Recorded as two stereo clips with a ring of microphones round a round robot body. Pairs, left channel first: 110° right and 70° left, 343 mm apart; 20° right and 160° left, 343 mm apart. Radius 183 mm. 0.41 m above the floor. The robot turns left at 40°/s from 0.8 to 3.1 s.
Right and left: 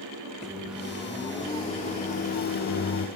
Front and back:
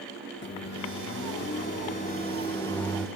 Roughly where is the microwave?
Ahead.